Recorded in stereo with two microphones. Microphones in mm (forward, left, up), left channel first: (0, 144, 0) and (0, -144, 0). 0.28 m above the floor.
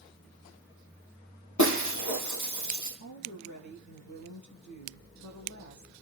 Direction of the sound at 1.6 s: 85° left.